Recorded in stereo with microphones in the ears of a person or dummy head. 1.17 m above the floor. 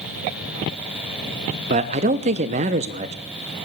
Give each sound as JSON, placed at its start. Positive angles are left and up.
{"t": 1.7, "sound": "a man speaking", "side_deg": -35, "distance_m": 0.5}